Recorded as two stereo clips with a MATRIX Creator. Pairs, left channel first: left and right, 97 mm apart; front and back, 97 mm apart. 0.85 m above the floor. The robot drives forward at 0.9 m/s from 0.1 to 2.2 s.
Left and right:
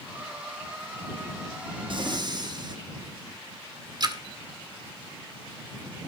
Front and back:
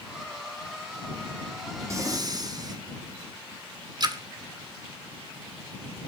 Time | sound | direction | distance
1.9 | breathing | 120° right | 1.2 m
4.0 | a splash | 135° right | 1.5 m